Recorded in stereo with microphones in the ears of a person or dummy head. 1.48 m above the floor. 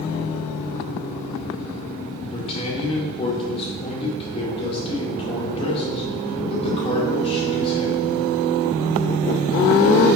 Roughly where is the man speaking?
Left.